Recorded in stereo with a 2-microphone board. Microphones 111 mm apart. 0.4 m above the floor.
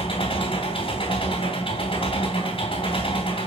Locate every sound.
0.0 s an engine running: 55° left (ahead or behind), 3 m